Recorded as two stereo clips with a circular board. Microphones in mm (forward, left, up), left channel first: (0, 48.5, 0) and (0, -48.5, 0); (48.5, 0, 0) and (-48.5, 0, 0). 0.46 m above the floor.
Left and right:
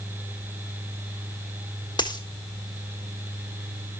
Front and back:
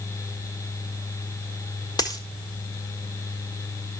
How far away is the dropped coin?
About 1.5 m.